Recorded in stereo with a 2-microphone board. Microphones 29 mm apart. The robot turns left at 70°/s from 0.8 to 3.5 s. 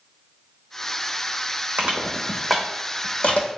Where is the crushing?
50° right (ahead or behind), 0.9 m; by 3.5 s 65° left (ahead or behind), 0.9 m.